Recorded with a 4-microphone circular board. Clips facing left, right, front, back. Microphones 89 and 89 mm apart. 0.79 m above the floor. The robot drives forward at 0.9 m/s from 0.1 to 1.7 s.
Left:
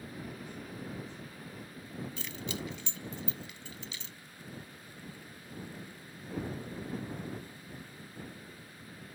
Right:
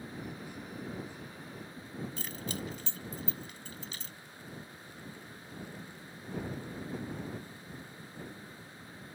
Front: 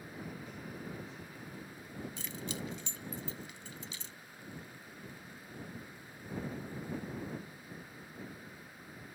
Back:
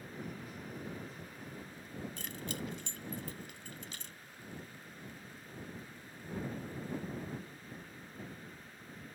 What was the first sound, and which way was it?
Keys jangling, 140° right.